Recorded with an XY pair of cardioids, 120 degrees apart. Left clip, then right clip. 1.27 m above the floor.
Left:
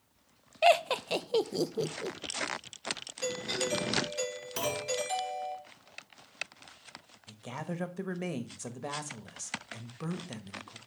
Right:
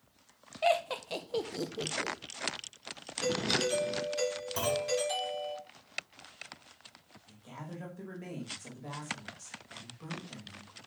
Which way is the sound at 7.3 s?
60° left.